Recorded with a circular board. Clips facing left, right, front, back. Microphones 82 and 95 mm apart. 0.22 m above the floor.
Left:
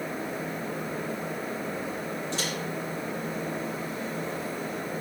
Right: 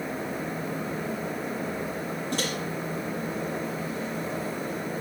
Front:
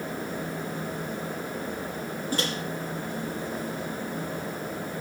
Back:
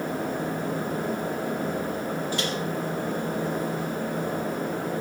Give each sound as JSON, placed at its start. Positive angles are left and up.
{"t": 2.3, "sound": "a microwave", "azimuth_deg": -50, "distance_m": 4.5}